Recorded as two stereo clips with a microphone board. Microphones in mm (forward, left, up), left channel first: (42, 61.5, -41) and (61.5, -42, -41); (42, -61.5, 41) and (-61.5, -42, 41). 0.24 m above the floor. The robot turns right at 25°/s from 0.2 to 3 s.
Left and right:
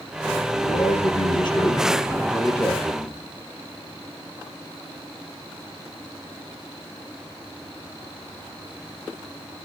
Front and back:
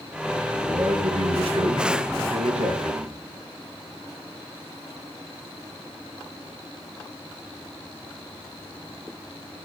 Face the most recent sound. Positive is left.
turn(degrees=180)